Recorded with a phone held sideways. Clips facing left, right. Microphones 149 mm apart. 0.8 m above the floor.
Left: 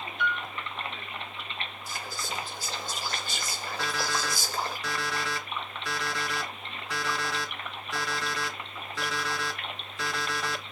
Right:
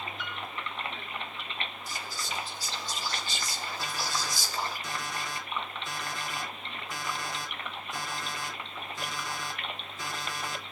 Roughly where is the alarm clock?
Left.